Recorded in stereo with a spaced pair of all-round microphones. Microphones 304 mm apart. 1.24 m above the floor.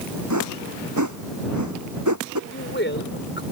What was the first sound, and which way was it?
A whoosh, 65° right (ahead or behind).